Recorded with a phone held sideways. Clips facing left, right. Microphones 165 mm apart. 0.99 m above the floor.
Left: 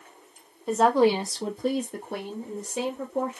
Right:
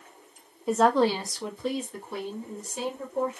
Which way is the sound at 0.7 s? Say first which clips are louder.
Left 2 dB; 5° right (ahead or behind).